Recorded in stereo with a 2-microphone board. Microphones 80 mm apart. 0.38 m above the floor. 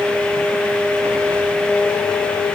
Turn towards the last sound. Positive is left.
No sound to turn to.